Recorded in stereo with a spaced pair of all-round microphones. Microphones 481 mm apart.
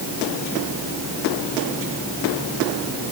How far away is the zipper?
I don't hear a zipper.